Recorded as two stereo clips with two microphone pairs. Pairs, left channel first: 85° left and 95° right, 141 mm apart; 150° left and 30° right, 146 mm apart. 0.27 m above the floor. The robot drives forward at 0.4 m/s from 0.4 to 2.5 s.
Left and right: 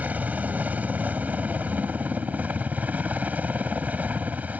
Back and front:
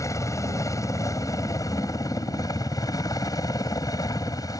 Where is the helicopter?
165° right; by 4.6 s 170° right.